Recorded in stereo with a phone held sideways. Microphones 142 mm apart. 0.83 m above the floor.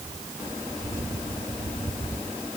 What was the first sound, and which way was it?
Only background noise.